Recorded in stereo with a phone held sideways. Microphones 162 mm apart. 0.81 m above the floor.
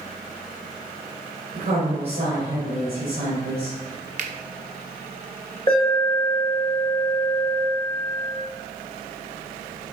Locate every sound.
1.5 s a woman speaking: 75° right (ahead or behind), 3 m
4.2 s a finger snap: 50° right (ahead or behind), 0.9 m
5.7 s an alarm: 30° left (ahead or behind), 2.5 m